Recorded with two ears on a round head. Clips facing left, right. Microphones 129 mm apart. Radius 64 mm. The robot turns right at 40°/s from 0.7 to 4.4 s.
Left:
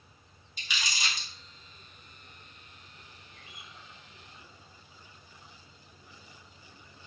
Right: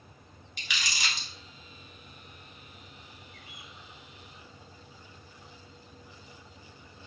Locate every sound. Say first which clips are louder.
0.6 s crumpling: even; 55° right (ahead or behind), 1.0 m; by 1.3 s 75° right (ahead or behind), 1.0 m
3.3 s a bird: right 2 dB; 15° left (ahead or behind), 0.9 m; by 3.8 s 30° left (ahead or behind), 0.9 m